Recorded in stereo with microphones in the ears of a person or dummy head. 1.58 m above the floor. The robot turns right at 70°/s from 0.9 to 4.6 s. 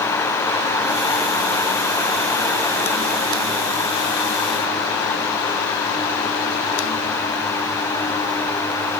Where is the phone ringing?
No phone ringing in this recording.